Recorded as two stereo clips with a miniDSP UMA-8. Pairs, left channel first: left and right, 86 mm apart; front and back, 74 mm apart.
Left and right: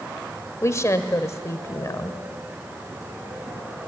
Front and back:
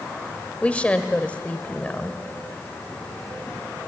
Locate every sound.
0.6 s a woman speaking: 65° left, 1.3 m